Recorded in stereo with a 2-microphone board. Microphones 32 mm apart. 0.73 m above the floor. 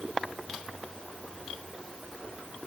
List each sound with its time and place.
Only background noise.